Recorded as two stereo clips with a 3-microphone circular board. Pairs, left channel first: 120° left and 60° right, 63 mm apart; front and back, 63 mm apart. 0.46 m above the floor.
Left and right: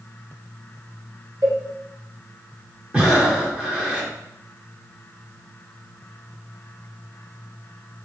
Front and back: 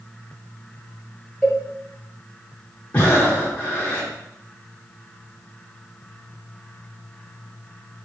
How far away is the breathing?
About 1.1 m.